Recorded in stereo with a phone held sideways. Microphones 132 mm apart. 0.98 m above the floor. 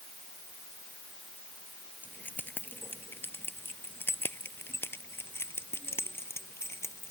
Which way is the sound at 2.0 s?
10° left (ahead or behind).